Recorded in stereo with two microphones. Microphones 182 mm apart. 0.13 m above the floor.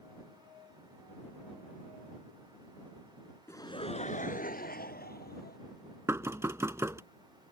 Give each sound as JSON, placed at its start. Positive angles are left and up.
{"t": 3.5, "sound": "laughter", "side_deg": 15}
{"t": 6.1, "sound": "knocking", "side_deg": -15}